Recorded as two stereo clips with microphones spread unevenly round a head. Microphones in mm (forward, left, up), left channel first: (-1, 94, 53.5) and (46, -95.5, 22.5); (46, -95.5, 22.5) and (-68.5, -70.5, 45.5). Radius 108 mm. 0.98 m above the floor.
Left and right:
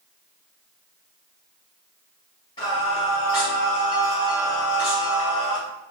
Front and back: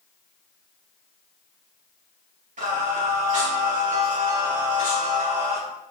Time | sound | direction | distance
2.6 | singing | 170° left | 2.0 m